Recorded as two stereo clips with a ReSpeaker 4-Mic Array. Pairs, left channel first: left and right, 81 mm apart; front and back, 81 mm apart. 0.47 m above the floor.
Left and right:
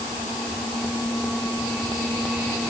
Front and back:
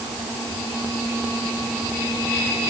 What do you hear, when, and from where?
Only background noise.